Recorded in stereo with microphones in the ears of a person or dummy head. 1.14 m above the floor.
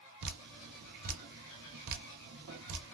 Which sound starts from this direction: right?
Dripping, at 0.2 s.